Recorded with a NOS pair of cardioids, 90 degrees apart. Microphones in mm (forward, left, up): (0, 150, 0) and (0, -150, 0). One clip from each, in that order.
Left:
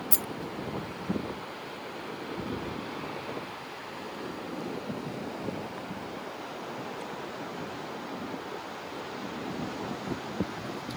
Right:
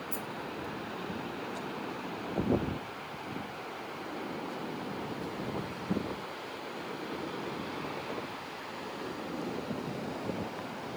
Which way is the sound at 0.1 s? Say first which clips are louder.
Left 6 dB; 70° left.